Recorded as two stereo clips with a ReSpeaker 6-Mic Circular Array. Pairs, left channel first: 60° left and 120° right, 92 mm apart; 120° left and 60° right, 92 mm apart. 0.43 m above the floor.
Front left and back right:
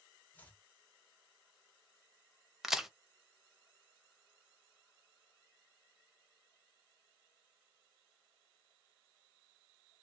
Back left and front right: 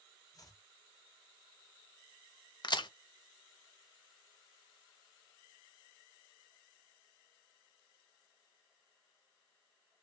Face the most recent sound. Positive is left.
turn(degrees=155)